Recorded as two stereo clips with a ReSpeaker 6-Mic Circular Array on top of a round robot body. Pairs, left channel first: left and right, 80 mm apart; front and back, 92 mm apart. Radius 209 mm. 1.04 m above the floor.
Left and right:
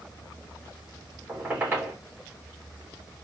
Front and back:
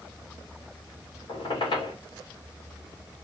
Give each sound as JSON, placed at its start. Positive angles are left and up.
{"t": 1.3, "sound": "a squeak", "azimuth_deg": -25, "distance_m": 2.5}